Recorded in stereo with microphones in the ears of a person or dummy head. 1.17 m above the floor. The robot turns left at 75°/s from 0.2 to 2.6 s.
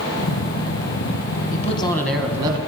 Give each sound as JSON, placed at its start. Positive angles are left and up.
{"t": 1.5, "sound": "a man speaking", "azimuth_deg": 45, "distance_m": 0.9}